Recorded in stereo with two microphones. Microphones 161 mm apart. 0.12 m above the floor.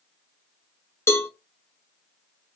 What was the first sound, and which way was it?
A cowbell, 15° left (ahead or behind).